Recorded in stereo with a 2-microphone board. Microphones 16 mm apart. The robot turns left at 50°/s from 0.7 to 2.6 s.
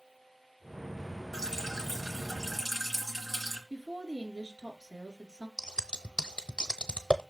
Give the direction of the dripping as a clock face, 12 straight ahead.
3 o'clock.